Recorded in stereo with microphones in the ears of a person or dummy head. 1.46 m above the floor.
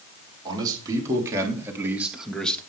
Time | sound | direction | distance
0.5 | a man speaking | 20° right (ahead or behind) | 4.5 m